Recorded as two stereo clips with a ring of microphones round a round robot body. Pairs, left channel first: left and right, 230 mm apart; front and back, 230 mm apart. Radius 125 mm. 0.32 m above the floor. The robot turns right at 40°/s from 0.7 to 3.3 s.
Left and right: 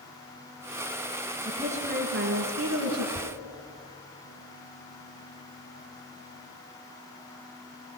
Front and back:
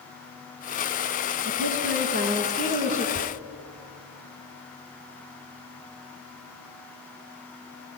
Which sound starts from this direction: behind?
A woman speaking, at 1.4 s.